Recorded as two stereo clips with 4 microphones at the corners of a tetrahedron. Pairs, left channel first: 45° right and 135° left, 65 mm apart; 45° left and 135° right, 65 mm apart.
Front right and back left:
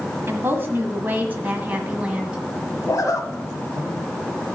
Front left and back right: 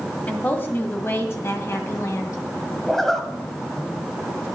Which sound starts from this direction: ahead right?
A zipper, at 2.9 s.